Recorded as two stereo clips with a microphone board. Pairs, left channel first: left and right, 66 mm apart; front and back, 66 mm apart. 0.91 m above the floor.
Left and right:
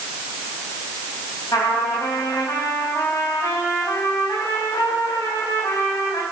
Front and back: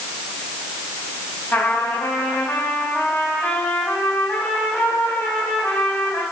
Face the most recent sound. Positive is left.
turn(degrees=60)